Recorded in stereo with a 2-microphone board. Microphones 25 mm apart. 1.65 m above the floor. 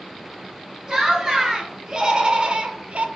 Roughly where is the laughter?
Right.